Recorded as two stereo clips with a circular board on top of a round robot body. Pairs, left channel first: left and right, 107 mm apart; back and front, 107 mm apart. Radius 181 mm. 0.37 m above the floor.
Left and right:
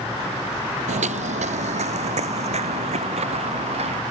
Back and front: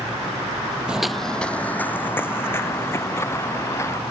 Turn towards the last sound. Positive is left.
turn(degrees=-115)